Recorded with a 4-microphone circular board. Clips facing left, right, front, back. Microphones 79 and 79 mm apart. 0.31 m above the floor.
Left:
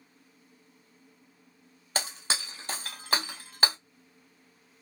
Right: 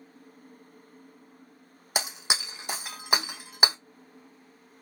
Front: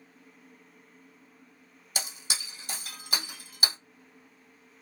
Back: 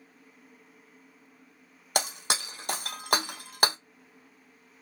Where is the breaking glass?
165° right, 0.6 m.